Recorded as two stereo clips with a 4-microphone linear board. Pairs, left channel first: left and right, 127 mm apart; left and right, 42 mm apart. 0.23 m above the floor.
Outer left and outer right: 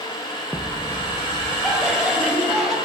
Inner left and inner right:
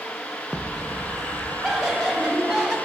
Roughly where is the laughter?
Centre.